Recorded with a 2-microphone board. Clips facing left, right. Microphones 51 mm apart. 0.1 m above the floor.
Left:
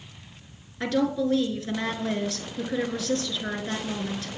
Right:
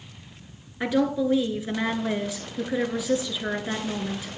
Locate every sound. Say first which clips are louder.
0.8 s a woman speaking: right 1 dB; 15° right (ahead or behind), 1.3 m